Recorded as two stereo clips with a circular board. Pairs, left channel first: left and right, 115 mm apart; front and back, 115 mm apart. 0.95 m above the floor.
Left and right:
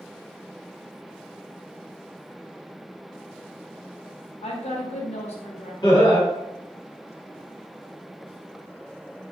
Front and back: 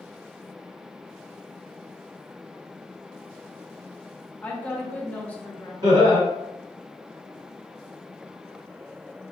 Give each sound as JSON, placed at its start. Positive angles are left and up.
{"t": 4.4, "sound": "a woman speaking", "azimuth_deg": 75, "distance_m": 0.7}
{"t": 5.8, "sound": "laughter", "azimuth_deg": 130, "distance_m": 1.4}